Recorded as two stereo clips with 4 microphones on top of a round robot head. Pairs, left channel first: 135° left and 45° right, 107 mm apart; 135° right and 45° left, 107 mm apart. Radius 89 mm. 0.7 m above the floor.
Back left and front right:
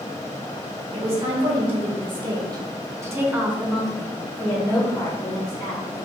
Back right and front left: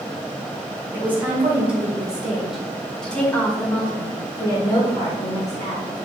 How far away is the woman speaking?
About 1.8 m.